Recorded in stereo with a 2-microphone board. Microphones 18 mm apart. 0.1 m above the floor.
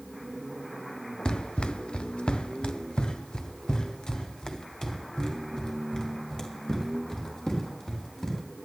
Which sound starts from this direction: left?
Running footsteps, at 1.2 s.